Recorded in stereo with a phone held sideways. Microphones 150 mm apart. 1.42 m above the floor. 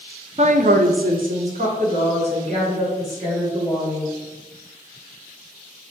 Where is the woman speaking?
45° right (ahead or behind), 0.5 m; by 4.1 s 40° right (ahead or behind), 3 m.